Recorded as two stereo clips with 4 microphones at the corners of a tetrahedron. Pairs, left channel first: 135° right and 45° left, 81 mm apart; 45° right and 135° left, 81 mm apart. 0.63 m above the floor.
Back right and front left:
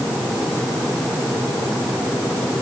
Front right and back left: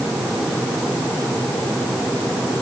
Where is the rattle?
I don't hear a rattle.